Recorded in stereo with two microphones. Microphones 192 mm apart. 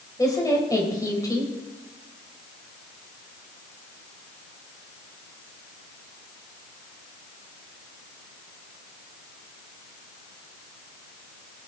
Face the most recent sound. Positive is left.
turn(degrees=20)  # may be behind; listen again after turning